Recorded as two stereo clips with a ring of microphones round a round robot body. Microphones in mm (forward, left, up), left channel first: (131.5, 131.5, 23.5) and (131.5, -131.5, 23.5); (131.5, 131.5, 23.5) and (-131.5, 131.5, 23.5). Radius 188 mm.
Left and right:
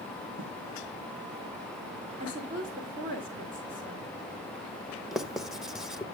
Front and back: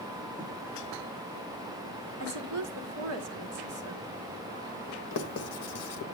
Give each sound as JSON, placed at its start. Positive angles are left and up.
{"t": 0.4, "sound": "writing", "azimuth_deg": -95, "distance_m": 4.5}
{"t": 2.2, "sound": "a woman speaking", "azimuth_deg": -155, "distance_m": 1.4}
{"t": 5.1, "sound": "writing", "azimuth_deg": 0, "distance_m": 1.0}